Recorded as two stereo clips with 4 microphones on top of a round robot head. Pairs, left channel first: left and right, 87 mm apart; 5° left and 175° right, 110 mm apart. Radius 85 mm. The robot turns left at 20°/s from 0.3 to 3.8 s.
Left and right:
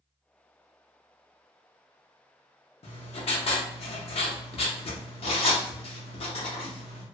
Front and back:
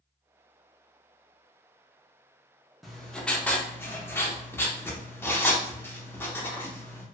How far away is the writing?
About 0.7 m.